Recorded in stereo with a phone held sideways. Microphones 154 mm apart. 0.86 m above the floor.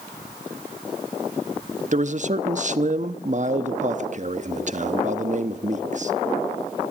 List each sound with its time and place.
1.9 s a man speaking: 50° right (ahead or behind), 1.0 m